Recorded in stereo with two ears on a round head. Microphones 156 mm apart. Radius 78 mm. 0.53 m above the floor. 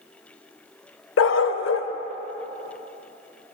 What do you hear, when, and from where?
1.2 s a dog barking: 85° left, 0.5 m